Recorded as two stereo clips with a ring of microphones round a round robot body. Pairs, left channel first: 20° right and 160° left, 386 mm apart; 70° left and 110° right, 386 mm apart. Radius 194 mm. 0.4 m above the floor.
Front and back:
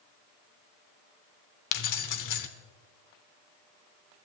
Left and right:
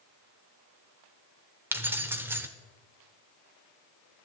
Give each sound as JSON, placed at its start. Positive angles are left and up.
{"t": 1.7, "sound": "keys jangling", "azimuth_deg": -30, "distance_m": 1.0}